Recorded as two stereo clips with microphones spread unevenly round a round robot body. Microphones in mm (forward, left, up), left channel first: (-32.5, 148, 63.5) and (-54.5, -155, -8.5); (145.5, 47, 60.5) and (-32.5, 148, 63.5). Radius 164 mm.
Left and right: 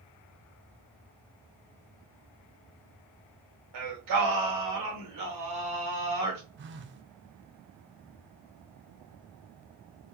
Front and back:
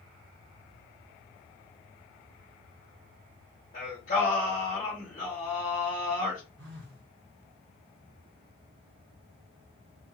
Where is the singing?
85° right, 1.8 m.